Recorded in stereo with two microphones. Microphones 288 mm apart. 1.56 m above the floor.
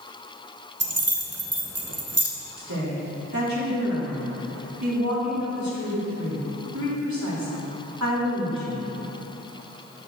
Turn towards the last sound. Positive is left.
turn(degrees=-80)